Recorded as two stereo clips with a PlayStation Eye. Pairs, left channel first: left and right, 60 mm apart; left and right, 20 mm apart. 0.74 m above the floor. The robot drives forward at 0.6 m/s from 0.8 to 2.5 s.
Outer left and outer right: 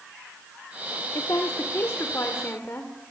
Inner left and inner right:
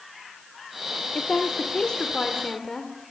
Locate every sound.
1.1 s a woman speaking: 60° left (ahead or behind), 1.4 m; by 3.1 s 40° left (ahead or behind), 1.9 m